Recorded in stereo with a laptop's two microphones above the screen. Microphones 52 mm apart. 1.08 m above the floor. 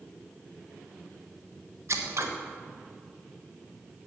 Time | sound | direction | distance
1.9 | scissors | 60° right (ahead or behind) | 1.3 m